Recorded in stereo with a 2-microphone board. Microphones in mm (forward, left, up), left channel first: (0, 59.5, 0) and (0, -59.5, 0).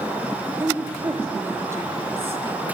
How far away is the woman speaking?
About 3.5 m.